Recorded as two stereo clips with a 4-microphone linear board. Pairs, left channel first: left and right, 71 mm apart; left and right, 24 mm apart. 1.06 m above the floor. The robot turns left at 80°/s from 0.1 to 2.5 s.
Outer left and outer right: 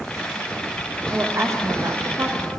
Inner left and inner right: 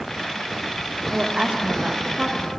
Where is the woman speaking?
35° right, 0.7 m; by 2.5 s 145° right, 0.7 m.